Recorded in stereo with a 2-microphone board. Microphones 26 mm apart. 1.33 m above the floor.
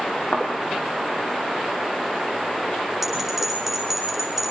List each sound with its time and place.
0.3 s a thud: 70° left (ahead or behind), 4 m
3.0 s a bell: 5° right (ahead or behind), 10 m